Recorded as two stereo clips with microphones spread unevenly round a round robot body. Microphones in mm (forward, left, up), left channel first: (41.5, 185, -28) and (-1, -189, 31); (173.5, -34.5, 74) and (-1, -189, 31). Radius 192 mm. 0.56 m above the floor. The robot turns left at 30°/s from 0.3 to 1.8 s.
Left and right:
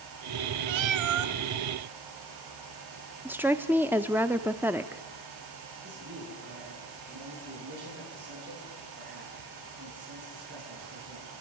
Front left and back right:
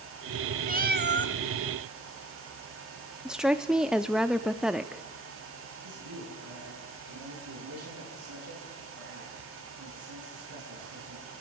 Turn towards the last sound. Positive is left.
turn(degrees=-160)